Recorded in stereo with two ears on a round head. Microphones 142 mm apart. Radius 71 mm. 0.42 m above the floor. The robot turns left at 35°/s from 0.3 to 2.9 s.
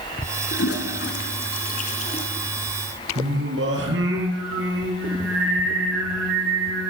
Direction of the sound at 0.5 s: 75° left (ahead or behind).